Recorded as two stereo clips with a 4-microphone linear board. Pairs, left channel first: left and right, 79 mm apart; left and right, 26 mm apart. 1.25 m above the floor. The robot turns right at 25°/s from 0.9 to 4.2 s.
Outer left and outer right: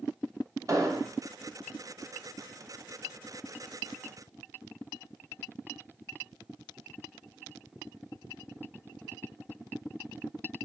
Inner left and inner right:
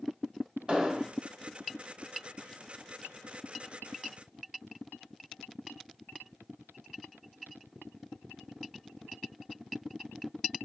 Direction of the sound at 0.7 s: 40° right (ahead or behind).